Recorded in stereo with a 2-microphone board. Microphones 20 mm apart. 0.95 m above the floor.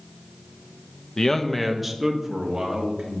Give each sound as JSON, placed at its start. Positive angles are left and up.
{"t": 1.2, "sound": "a man speaking", "side_deg": 35, "distance_m": 0.6}